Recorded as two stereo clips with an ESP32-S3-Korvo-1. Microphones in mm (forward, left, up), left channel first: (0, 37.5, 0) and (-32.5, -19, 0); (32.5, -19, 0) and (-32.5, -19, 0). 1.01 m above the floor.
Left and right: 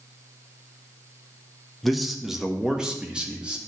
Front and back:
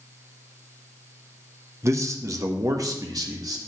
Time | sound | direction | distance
1.8 | a man speaking | 150° left | 1.0 m